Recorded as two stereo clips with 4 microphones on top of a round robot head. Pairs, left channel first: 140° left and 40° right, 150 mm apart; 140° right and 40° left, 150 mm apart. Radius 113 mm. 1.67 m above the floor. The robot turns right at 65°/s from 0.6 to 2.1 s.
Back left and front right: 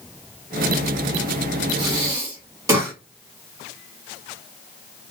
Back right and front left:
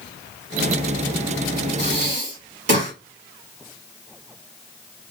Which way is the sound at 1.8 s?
5° left.